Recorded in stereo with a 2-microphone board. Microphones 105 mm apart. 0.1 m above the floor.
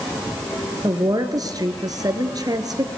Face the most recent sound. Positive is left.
turn(degrees=-35)  # may be behind; listen again after turning